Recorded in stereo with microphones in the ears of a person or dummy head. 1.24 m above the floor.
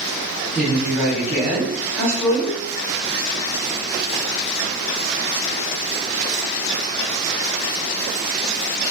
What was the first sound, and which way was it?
A woman speaking, 10° right (ahead or behind).